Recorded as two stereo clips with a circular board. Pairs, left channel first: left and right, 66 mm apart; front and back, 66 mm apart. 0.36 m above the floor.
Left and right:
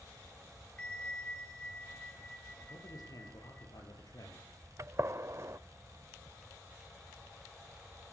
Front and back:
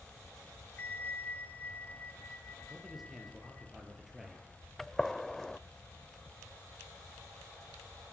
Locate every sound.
0.8 s a bell: 30° left, 1.4 m
2.7 s a man speaking: 95° left, 7 m
4.8 s a gunshot: 85° right, 0.5 m